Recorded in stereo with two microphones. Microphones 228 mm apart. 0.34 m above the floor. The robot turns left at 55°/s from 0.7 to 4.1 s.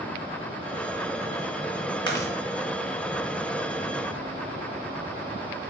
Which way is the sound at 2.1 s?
20° left (ahead or behind).